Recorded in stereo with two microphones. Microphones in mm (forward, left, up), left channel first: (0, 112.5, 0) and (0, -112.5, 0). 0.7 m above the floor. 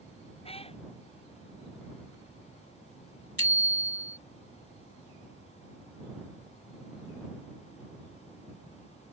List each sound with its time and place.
0.5 s a cat meowing: 25° left (ahead or behind)
3.4 s a bicycle bell: 80° left